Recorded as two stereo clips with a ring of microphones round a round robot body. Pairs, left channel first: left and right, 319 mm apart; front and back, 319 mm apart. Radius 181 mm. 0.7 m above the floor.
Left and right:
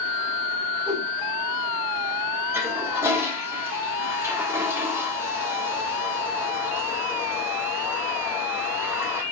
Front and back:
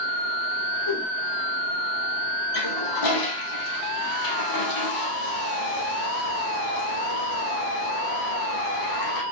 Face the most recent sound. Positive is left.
turn(degrees=-5)